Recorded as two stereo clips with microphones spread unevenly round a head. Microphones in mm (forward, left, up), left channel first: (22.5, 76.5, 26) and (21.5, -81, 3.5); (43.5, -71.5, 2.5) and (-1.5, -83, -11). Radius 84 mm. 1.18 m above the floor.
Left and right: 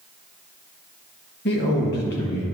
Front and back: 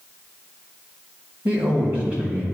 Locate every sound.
1.4 s a man speaking: 125° left, 1.5 m